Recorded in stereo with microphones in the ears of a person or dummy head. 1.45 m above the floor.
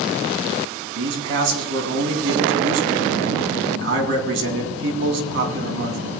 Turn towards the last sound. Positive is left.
turn(degrees=-85)